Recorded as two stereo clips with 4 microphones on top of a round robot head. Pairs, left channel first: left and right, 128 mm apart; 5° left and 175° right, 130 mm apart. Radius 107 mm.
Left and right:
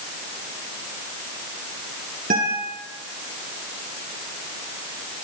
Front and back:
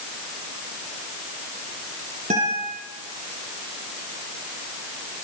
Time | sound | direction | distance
2.3 | a guitar | 125° right | 10 m